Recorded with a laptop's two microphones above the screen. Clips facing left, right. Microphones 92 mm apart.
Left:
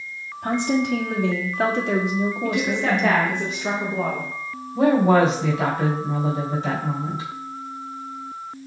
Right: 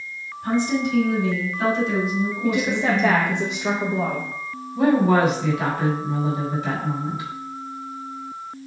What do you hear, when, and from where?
0.4 s a woman speaking: 60° left (ahead or behind), 2.5 m
2.4 s a woman speaking: 5° right (ahead or behind), 0.9 m
4.8 s a woman speaking: 30° left (ahead or behind), 3.5 m